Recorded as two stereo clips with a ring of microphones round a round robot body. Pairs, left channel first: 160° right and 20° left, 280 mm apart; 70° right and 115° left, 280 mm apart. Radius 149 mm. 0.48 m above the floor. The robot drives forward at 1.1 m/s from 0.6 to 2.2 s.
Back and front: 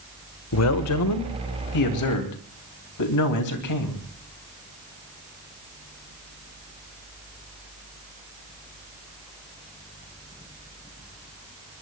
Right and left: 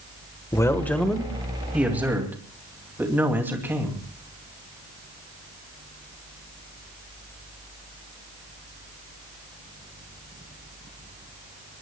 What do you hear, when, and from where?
0.5 s a man speaking: 145° right, 1.5 m; by 4.0 s 165° right, 3 m